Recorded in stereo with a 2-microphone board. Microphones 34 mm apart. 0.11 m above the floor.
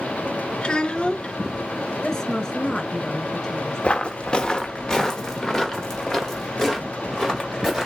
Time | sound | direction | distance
0.6 | a child speaking | 30° left (ahead or behind) | 0.7 m
2.0 | a woman speaking | 15° left (ahead or behind) | 1.1 m
3.8 | footsteps | 35° left (ahead or behind) | 0.9 m